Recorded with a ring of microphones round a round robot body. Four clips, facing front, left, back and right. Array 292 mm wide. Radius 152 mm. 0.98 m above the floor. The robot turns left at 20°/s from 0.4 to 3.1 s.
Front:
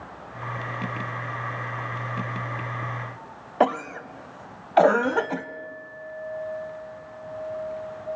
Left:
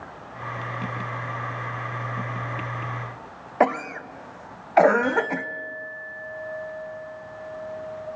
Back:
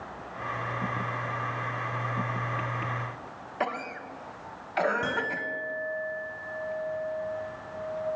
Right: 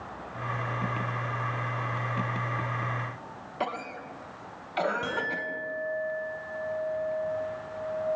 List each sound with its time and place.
3.6 s a cough: 45° left, 1.1 m
5.0 s a clink: 160° right, 6 m